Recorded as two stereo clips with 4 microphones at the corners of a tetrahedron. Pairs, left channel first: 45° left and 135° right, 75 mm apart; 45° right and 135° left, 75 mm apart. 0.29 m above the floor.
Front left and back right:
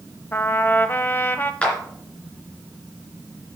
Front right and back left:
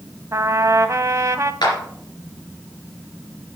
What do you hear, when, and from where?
0.3 s a trumpet: 100° left, 0.6 m
1.6 s a clap: 30° right, 3 m